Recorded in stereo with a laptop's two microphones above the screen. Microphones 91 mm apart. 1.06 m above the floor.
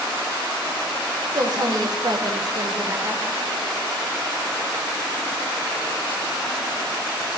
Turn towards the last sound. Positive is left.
turn(degrees=-25)  # may be behind; listen again after turning